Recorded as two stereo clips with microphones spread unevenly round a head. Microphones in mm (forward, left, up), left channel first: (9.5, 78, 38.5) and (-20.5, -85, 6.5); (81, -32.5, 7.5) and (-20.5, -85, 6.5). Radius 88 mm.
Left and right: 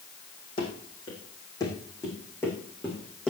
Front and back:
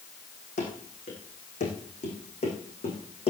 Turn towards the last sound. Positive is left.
turn(degrees=0)